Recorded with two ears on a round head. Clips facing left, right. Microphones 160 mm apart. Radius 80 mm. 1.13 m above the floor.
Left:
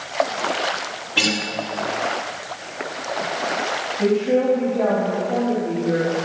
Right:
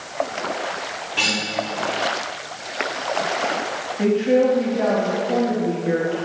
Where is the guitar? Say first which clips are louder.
Left 4 dB; 65° left (ahead or behind), 2.5 m.